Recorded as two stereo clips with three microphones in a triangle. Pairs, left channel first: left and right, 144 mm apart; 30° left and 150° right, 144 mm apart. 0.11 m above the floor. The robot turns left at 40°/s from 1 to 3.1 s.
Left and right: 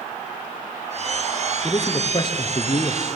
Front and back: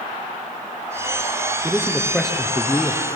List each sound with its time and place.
1.6 s a man speaking: 140° left, 1.7 m; by 3.2 s 85° left, 1.7 m